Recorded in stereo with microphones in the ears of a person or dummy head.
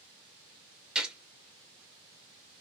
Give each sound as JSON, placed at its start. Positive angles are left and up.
{"t": 0.9, "sound": "a gunshot", "side_deg": 0, "distance_m": 0.6}